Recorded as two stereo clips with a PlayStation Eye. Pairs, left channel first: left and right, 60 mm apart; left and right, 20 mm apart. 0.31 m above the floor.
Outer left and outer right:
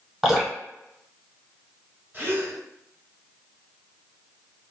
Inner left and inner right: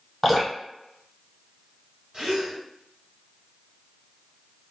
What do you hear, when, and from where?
0.2 s dripping: 5° right (ahead or behind), 1.2 m
2.1 s a gasp: 35° right (ahead or behind), 0.9 m